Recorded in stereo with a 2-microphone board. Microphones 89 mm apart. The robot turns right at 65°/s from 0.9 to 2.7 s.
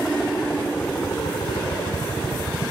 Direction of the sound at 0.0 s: 10° left (ahead or behind).